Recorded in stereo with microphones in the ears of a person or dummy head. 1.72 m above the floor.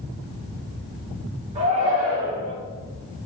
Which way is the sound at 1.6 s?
25° right (ahead or behind).